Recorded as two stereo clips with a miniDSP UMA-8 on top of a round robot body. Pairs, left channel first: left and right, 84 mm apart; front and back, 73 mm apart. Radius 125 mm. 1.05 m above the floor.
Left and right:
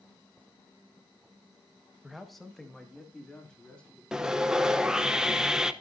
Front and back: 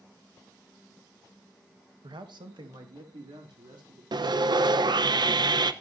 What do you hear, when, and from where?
2.0 s a man speaking: 175° right, 1.4 m; by 4.0 s 165° left, 3.5 m
4.1 s sawing: 175° right, 0.9 m